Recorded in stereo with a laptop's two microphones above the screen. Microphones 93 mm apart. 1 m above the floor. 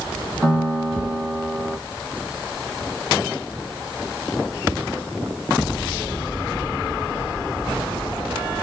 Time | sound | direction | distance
0.4 | a piano | 5° right (ahead or behind) | 1.3 m